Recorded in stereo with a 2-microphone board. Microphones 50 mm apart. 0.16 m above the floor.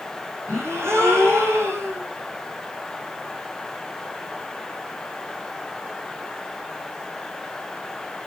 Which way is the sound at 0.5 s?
65° right (ahead or behind).